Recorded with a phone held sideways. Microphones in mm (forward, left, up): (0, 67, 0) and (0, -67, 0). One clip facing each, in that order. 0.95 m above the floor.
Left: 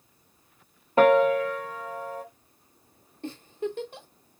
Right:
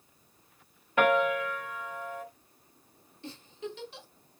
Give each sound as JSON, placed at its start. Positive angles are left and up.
{"t": 1.0, "sound": "a piano", "side_deg": 35, "distance_m": 0.6}
{"t": 3.2, "sound": "a giggle", "side_deg": 50, "distance_m": 0.8}